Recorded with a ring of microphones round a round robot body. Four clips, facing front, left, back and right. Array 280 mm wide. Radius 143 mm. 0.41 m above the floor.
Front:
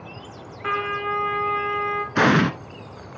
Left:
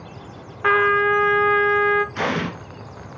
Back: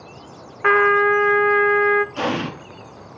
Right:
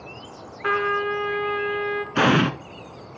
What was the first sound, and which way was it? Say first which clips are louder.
A trumpet: left 6 dB, back 10 dB; 150° left.